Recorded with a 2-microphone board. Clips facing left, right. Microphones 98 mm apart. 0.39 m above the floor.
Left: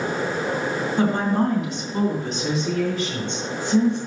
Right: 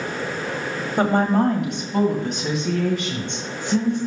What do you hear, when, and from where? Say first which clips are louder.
1.0 s a woman speaking: right 3 dB; 50° right (ahead or behind), 1.7 m; by 4.0 s 55° right (ahead or behind), 4.5 m